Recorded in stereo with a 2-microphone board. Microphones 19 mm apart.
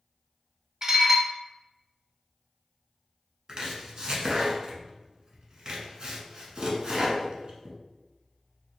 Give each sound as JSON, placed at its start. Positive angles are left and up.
{"t": 0.8, "sound": "dishes clattering", "side_deg": -35, "distance_m": 0.7}
{"t": 3.5, "sound": "chopping", "side_deg": -45, "distance_m": 0.9}